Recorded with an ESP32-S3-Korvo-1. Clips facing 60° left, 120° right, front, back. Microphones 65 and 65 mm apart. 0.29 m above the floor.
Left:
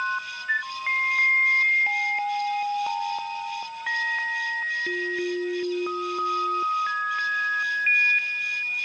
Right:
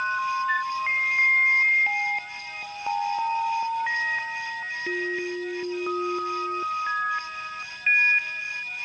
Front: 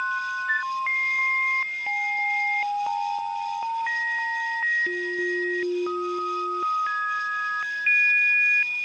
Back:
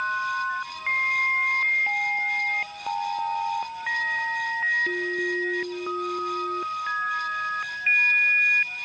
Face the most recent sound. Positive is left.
turn(degrees=-20)